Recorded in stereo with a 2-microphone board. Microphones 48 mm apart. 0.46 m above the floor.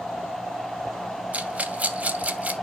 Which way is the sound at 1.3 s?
30° right (ahead or behind).